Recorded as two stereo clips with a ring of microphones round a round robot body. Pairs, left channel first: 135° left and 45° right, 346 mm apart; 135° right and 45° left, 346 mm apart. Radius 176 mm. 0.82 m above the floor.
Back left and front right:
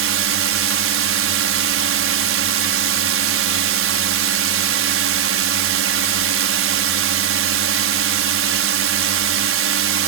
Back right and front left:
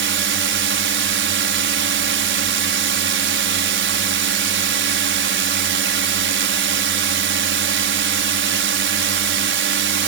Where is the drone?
5° right.